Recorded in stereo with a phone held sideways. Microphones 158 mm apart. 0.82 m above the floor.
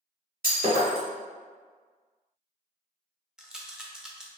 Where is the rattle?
5° right (ahead or behind), 0.5 m.